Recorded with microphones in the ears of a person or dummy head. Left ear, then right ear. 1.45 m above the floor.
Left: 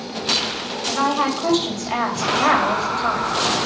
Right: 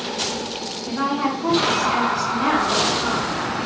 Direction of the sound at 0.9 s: 50° left (ahead or behind).